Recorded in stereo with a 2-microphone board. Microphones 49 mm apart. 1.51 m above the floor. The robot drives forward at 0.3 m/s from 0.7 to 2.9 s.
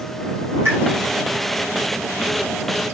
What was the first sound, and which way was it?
A pop, 55° right (ahead or behind).